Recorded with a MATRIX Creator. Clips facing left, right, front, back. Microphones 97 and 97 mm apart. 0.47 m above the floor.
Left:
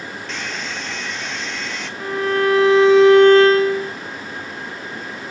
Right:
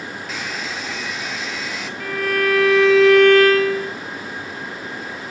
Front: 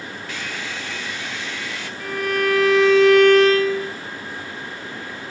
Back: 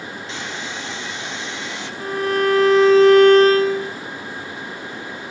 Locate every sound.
0.3 s a hair dryer: 170° right, 1.1 m
2.0 s a violin: 145° left, 1.0 m